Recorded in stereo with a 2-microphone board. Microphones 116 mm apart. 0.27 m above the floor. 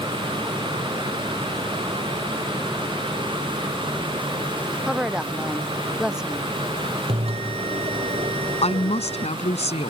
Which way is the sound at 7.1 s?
60° right (ahead or behind).